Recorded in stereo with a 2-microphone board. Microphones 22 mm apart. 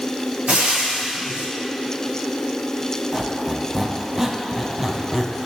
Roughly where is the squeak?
Centre.